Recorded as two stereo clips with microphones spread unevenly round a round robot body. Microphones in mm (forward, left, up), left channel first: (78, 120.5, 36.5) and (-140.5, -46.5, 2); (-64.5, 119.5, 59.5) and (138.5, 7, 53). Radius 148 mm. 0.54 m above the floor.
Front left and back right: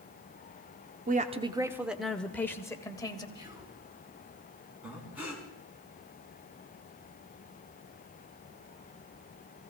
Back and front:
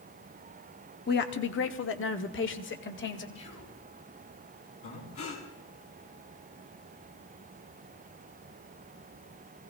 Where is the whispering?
145° left, 7 m.